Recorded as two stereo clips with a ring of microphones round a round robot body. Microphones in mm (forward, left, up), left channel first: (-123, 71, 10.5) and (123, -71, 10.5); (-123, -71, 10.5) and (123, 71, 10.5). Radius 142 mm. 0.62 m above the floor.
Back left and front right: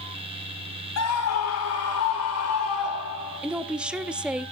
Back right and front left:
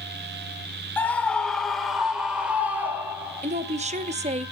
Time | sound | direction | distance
1.0 | a scream | 125° left | 2.5 m
3.4 | a woman speaking | 50° left | 0.6 m